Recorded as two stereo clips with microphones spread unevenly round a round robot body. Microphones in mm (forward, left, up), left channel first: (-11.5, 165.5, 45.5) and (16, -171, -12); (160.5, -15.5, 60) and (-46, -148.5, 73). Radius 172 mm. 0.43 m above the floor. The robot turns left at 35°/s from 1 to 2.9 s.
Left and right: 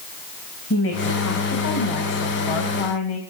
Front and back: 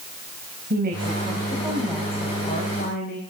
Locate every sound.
0.7 s a woman speaking: 155° left, 3 m; by 3.2 s 90° left, 3 m